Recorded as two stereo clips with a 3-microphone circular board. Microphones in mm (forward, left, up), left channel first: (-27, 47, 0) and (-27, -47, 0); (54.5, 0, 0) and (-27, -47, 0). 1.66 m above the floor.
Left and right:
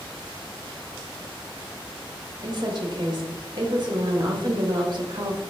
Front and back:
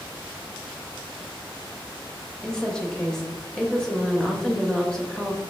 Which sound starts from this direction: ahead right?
A woman speaking, at 2.4 s.